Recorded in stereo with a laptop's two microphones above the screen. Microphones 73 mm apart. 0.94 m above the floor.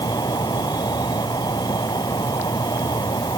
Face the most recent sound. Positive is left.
turn(degrees=75)  # may be behind; listen again after turning